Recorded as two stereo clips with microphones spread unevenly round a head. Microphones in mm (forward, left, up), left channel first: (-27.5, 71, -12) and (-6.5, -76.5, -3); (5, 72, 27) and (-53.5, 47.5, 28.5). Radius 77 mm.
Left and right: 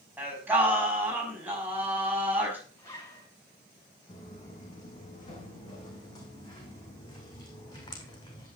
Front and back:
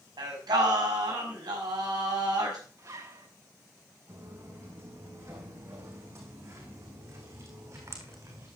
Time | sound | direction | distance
0.2 | singing | 160° right | 5.5 m
2.8 | a zipper | 170° left | 7 m
4.1 | footsteps | 160° left | 5.5 m